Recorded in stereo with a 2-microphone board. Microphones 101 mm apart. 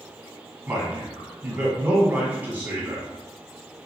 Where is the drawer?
I don't hear a drawer.